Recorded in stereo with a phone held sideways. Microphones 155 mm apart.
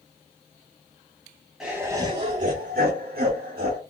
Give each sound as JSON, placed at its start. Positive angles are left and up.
{"t": 1.6, "sound": "laughter", "side_deg": -5, "distance_m": 0.6}